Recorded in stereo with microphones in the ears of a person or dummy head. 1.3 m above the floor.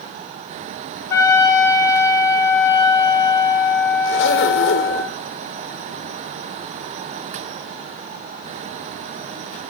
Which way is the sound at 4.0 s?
70° left (ahead or behind).